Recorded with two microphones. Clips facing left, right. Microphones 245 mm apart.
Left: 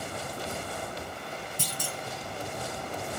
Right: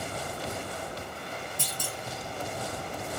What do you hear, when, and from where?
1.6 s a clunk: 20° left (ahead or behind), 1.8 m